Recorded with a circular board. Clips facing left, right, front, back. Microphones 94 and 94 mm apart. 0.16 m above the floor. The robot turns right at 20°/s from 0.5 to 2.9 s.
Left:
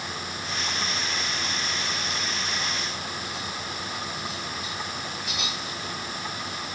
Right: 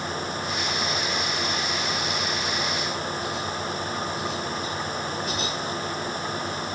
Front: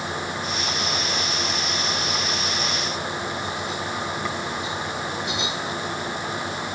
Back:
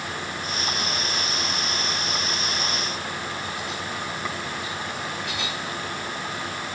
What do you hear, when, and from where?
Only background noise.